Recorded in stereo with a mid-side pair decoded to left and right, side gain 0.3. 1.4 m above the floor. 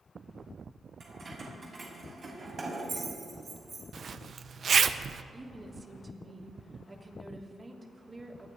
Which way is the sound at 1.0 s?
65° right.